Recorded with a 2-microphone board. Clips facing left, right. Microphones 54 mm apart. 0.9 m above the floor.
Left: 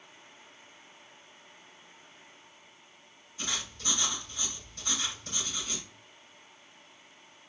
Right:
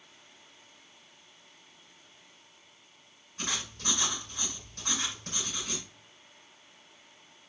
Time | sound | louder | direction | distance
3.4 | writing | right 1 dB | 50° right (ahead or behind) | 6.5 m